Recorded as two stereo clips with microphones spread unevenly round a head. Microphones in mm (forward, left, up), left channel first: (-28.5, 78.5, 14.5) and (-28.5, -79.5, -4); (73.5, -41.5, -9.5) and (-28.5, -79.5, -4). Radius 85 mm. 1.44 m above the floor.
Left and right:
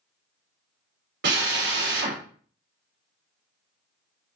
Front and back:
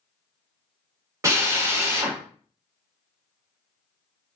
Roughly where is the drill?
Right.